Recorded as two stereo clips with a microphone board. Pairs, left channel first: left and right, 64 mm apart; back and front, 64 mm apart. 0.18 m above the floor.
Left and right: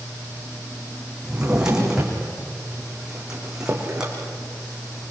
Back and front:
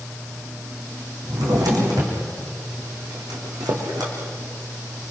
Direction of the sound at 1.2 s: 10° right.